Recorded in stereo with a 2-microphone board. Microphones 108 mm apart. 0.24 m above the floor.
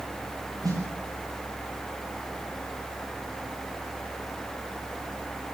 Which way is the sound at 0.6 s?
35° right (ahead or behind).